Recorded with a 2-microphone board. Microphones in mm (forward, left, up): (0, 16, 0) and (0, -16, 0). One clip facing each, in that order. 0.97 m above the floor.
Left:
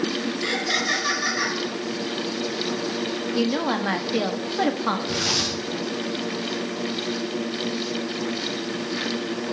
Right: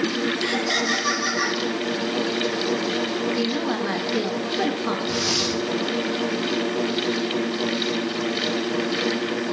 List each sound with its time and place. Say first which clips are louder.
0.4 s laughter: left 2 dB; 20° left (ahead or behind), 8.5 m
3.3 s a woman speaking: left 1 dB; 60° left (ahead or behind), 2 m
5.1 s tearing paper: right 1 dB; 75° left (ahead or behind), 4.5 m